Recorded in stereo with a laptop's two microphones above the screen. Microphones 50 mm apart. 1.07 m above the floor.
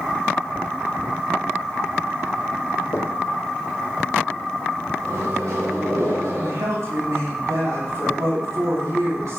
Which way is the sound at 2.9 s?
65° left (ahead or behind).